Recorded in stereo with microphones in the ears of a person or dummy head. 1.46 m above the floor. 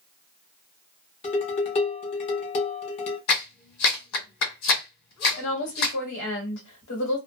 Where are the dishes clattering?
40° left (ahead or behind), 0.9 m.